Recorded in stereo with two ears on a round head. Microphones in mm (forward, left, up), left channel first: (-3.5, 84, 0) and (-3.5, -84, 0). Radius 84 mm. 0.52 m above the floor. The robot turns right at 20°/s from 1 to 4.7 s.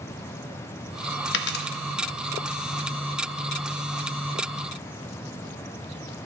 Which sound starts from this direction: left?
A dropped coin, at 1.3 s.